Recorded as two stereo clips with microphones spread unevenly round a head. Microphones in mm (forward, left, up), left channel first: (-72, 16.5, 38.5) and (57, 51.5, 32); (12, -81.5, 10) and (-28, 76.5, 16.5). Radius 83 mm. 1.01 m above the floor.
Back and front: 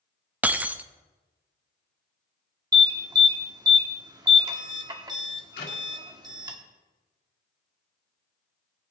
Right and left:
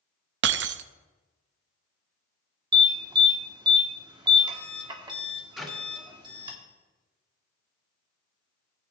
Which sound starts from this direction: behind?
A clap, at 5.6 s.